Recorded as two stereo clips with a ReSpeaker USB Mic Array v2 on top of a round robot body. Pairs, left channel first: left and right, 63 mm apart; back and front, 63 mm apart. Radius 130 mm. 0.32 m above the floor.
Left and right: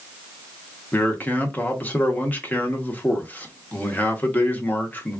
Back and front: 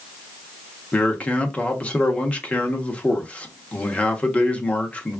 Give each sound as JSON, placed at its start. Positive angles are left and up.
{"t": 0.9, "sound": "a man speaking", "azimuth_deg": 130, "distance_m": 1.0}